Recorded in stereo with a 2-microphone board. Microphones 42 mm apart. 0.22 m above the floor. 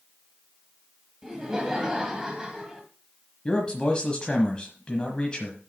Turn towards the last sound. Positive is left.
turn(degrees=20)  # may be behind; listen again after turning